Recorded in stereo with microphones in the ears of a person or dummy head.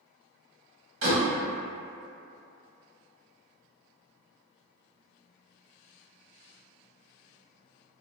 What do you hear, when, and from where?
1.0 s a door slam: 80° right, 1.5 m